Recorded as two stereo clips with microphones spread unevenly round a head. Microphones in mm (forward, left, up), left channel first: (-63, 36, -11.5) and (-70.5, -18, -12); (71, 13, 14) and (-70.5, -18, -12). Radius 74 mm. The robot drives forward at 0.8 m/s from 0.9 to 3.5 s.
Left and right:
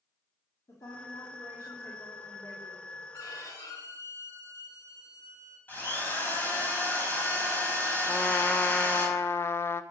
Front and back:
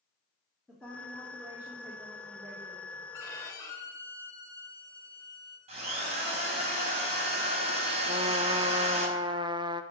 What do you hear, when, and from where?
0.7 s a woman speaking: 100° left, 2.5 m; by 2.9 s 125° left, 3.5 m
3.1 s a violin: 80° left, 4.5 m; by 5.6 s 85° left, 4.5 m
5.7 s a drill: 140° left, 5.5 m
8.1 s a trumpet: 130° left, 1.0 m